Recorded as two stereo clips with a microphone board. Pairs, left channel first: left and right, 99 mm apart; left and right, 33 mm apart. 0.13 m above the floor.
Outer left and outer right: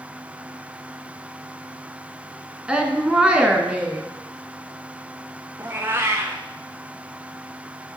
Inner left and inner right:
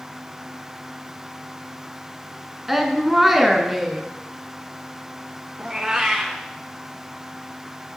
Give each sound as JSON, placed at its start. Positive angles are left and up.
{"t": 2.7, "sound": "a woman speaking", "side_deg": -10, "distance_m": 1.3}
{"t": 5.6, "sound": "a cat meowing", "side_deg": -25, "distance_m": 1.3}